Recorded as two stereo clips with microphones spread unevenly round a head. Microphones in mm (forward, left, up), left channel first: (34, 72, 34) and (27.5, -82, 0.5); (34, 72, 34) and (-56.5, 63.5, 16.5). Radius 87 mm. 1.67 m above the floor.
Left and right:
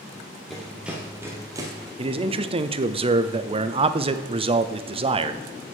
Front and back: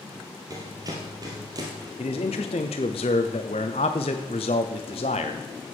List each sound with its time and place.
0.5 s running footsteps: 155° left, 1.9 m; by 1.9 s 155° right, 1.8 m
2.0 s a man speaking: 40° right, 0.7 m